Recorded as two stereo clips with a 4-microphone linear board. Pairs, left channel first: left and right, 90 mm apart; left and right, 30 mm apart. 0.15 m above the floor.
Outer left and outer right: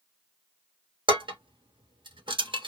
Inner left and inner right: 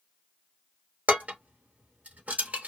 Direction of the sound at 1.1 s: 60° right (ahead or behind).